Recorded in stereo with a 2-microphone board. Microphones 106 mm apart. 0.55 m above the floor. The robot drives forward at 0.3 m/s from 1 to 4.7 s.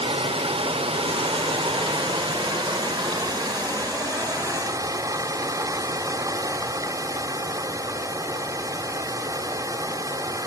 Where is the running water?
60° right (ahead or behind), 1.2 m; by 10.5 s 35° right (ahead or behind), 1.8 m.